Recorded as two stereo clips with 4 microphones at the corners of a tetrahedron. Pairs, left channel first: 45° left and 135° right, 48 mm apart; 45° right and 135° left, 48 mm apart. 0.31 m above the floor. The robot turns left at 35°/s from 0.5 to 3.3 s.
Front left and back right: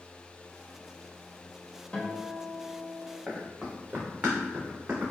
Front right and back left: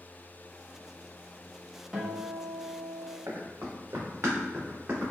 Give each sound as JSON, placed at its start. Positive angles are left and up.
{"t": 1.9, "sound": "a guitar", "azimuth_deg": 70, "distance_m": 0.9}
{"t": 3.3, "sound": "running footsteps", "azimuth_deg": 150, "distance_m": 1.4}